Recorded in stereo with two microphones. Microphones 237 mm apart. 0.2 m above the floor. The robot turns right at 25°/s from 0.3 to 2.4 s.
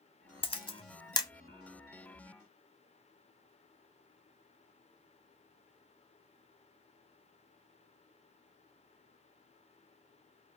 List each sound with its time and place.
0.4 s a camera shutter: 25° left (ahead or behind), 0.6 m; by 1.3 s 15° left (ahead or behind), 0.6 m